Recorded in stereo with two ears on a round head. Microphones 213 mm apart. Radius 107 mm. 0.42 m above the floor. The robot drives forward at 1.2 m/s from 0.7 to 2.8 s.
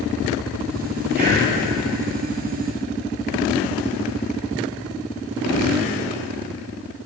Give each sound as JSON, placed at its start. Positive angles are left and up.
{"t": 1.1, "sound": "breathing", "side_deg": -40, "distance_m": 9.0}